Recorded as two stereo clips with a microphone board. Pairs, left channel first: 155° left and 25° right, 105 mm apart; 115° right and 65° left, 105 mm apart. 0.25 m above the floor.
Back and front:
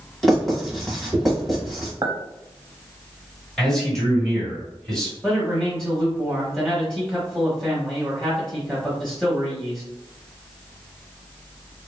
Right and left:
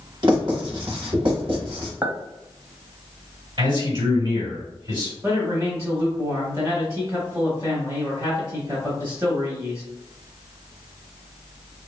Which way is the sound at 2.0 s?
Straight ahead.